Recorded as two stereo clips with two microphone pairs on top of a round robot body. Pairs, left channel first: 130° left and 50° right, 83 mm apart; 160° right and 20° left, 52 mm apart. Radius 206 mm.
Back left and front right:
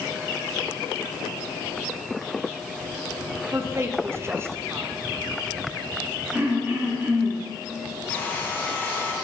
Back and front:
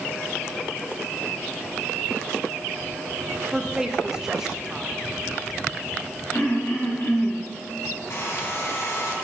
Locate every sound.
3.5 s a woman speaking: 55° right, 0.7 m
6.3 s throat clearing: 115° right, 1.5 m
8.1 s a hair dryer: 165° right, 1.4 m